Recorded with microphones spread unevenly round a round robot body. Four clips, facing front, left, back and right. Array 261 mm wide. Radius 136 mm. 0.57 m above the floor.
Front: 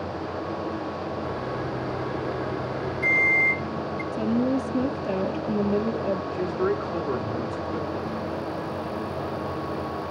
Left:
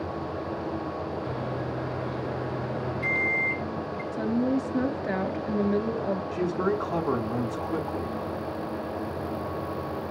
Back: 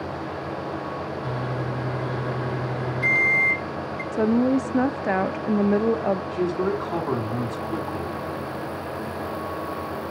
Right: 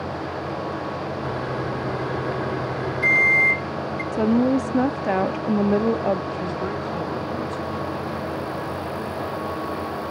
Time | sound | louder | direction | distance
1.2 | a microwave | right 5 dB, back 1 dB | 105° right | 2 m
4.1 | a woman speaking | right 7 dB, back 4 dB | 120° right | 0.8 m
6.3 | a man speaking | left 1 dB, back 1 dB | 145° left | 4 m